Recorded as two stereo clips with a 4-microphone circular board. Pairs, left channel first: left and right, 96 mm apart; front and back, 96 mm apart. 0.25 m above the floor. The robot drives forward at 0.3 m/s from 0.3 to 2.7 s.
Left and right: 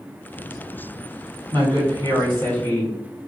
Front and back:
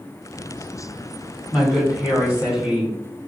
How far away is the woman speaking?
About 1.7 m.